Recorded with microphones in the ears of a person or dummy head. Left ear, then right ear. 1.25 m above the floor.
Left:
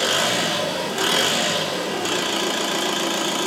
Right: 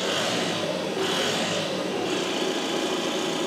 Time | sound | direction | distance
0.0 | an engine running | 50° left (ahead or behind) | 2.5 m